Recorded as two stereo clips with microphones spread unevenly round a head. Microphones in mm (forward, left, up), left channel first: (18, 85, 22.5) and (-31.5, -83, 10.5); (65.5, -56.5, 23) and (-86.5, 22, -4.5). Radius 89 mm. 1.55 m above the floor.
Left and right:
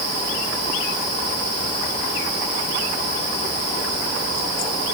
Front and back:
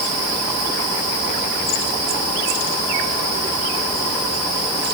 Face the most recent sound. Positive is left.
No sound to turn to.